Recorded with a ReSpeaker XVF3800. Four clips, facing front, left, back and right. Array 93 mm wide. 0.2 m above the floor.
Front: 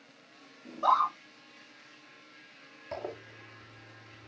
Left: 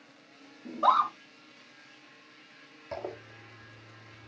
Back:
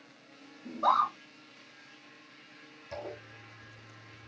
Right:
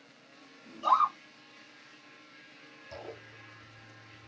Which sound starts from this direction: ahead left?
A zipper, at 2.9 s.